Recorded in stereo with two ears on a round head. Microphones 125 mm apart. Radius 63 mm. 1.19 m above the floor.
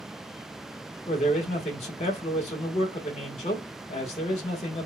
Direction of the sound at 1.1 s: 50° left (ahead or behind).